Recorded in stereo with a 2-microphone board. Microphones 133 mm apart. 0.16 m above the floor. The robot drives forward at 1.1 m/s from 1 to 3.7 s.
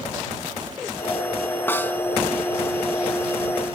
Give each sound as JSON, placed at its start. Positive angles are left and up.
{"t": 1.7, "sound": "a snare drum", "side_deg": 15, "distance_m": 1.5}